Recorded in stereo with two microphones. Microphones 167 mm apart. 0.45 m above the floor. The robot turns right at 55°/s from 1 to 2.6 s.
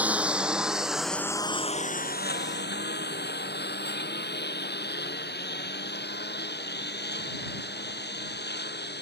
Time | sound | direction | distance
0.0 | a lawn mower | 10° right (ahead or behind) | ?